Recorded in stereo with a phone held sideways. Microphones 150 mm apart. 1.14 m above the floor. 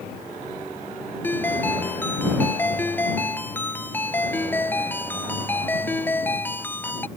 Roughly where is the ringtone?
Centre.